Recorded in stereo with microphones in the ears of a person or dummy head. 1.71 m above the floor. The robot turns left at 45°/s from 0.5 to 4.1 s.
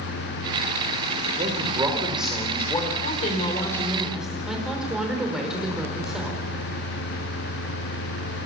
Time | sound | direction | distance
1.4 | a man speaking | 145° right | 5 m
3.0 | a woman speaking | 45° left | 5.5 m